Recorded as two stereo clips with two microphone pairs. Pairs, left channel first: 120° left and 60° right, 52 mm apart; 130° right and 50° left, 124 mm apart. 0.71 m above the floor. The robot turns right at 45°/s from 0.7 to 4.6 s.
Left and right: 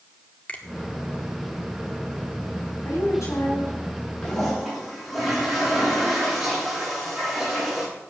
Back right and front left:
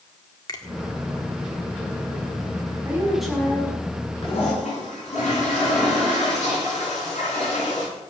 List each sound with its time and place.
0.5 s a finger snap: straight behind, 1.8 m
2.9 s a woman speaking: 125° left, 5.5 m; by 4.1 s straight behind, 5.5 m
4.2 s a toilet flushing: 165° right, 10 m; by 7.9 s 150° right, 10 m